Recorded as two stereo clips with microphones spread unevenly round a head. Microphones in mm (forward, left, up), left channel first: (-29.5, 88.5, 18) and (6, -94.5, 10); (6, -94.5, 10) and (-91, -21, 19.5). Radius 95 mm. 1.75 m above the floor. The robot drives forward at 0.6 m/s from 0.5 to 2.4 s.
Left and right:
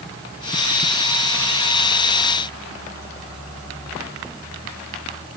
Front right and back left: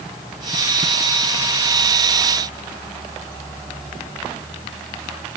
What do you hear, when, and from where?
Only background noise.